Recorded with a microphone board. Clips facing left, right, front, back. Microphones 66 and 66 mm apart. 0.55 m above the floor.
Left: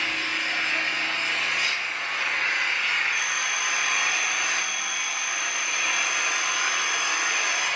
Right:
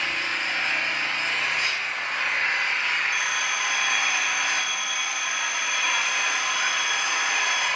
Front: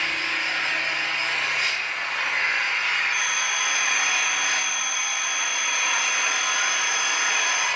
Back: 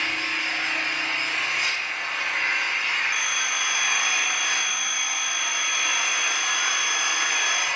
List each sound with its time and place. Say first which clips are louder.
0.0 s an engine running: right 1 dB, front 1 dB; 45° right, 2.5 m
3.1 s a phone ringing: right 1 dB, front 1 dB; 100° right, 4 m